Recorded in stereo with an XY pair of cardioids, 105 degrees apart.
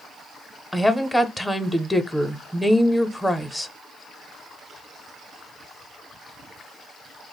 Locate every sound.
0.7 s a woman speaking: 10° left, 0.6 m